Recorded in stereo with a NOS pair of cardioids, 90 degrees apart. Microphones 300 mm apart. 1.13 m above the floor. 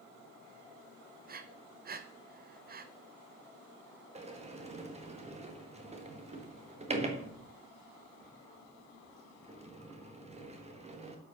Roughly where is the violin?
I don't hear a violin.